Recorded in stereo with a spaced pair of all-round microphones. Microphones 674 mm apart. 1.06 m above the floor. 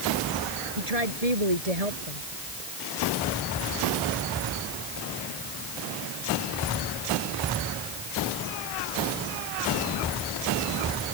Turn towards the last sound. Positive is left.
turn(degrees=-65)  # may be behind; listen again after turning